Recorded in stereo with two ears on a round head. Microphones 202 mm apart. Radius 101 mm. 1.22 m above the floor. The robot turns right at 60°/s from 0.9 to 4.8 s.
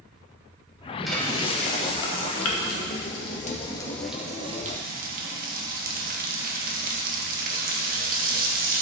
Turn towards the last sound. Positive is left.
turn(degrees=-135)